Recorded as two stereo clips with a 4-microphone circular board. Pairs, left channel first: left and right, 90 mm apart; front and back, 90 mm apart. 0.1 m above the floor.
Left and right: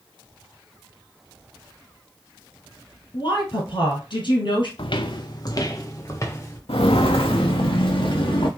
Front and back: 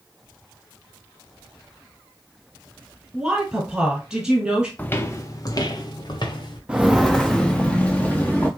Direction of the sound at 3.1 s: 100° left.